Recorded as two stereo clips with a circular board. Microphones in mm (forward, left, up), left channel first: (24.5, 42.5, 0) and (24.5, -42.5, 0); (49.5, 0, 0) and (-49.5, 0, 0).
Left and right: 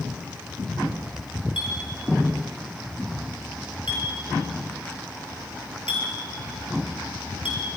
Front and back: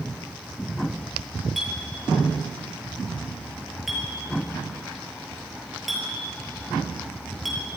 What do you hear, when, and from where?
1.6 s a clink: 90° left, 7 m